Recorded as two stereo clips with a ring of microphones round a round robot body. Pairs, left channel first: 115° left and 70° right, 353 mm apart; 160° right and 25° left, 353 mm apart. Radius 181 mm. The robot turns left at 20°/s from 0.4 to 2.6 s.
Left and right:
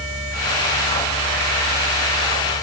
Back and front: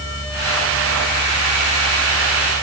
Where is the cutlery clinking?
I don't hear cutlery clinking.